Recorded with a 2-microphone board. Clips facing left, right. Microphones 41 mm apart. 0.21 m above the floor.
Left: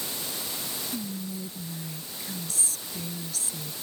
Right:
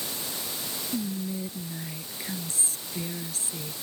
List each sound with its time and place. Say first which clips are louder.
0.9 s whispering: right 6 dB; 35° right (ahead or behind)